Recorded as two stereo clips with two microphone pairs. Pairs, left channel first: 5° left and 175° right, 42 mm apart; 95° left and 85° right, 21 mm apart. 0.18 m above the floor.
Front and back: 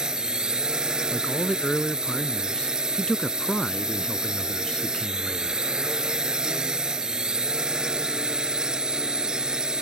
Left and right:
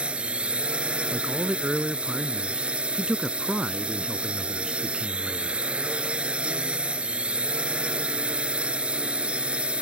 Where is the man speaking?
55° right.